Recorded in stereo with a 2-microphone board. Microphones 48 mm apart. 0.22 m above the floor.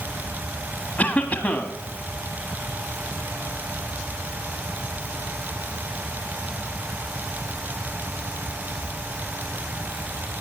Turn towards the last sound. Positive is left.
turn(degrees=35)  # may be behind; listen again after turning